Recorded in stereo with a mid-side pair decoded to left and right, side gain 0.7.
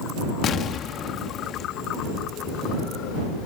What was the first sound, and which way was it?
An explosion, 40° left.